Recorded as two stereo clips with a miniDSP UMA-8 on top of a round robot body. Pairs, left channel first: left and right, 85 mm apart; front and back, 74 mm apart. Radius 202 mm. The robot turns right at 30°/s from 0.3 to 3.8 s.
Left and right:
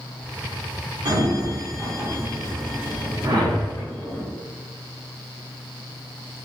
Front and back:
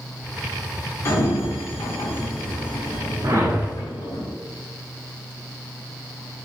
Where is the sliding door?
55° right, 0.7 m; by 4.2 s 25° left, 0.7 m.